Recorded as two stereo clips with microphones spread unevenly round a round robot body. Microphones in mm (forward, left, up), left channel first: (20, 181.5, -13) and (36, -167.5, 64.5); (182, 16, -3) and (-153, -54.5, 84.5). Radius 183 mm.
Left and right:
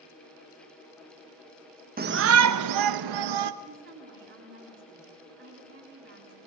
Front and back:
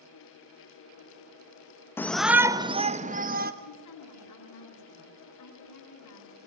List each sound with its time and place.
2.0 s a shout: 20° right, 0.8 m; by 3.5 s 95° right, 1.2 m
3.6 s a woman speaking: 30° right, 10 m